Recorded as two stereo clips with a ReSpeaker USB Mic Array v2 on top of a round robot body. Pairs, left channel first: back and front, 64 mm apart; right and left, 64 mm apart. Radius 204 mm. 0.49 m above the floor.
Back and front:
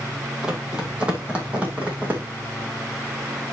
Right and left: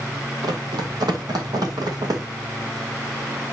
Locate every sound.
0.4 s running footsteps: 80° left, 1.8 m; by 2.2 s 65° left, 2.5 m